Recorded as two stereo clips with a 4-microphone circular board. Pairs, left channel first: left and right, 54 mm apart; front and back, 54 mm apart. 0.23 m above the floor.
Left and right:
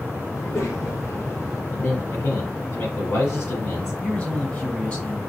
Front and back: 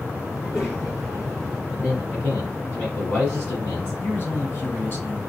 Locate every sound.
0.3 s a child speaking: 60° left, 2.5 m; by 1.6 s 75° left, 2 m
1.7 s a man speaking: 55° left, 1.9 m
4.0 s a man speaking: 35° left, 2 m